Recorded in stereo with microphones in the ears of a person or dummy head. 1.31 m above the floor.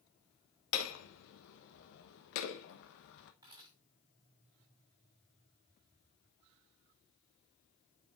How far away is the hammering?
About 0.9 m.